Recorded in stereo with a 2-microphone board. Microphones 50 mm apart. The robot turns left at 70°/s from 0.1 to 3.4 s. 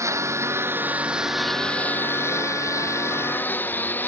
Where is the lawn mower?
90° right; by 4.1 s 40° left.